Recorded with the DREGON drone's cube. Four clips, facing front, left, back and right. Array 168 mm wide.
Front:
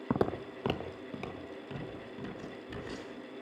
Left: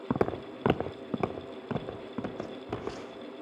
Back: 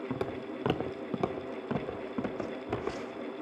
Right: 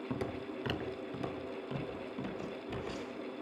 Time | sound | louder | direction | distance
0.1 | footsteps | left 11 dB, front 7 dB | 55° left | 0.7 m